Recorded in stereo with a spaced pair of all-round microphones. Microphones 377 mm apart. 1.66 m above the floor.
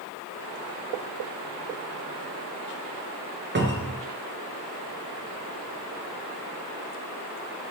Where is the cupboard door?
30° right (ahead or behind), 0.5 m.